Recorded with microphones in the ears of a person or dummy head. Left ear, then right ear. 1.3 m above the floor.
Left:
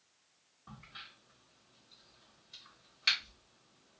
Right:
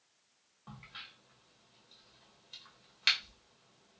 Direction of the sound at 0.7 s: 35° right (ahead or behind).